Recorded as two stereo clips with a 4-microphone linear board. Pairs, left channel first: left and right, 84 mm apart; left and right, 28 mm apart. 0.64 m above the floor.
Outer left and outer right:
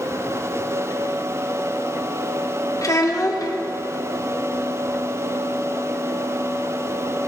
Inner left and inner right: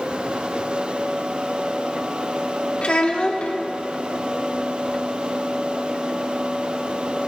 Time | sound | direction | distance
2.8 | a child speaking | 45° left (ahead or behind) | 0.9 m